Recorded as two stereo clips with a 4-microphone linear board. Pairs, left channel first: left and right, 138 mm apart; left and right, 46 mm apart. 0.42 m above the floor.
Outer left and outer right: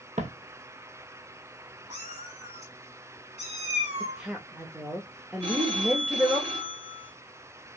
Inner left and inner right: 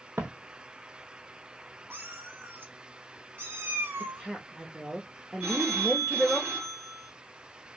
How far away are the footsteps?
About 1.0 m.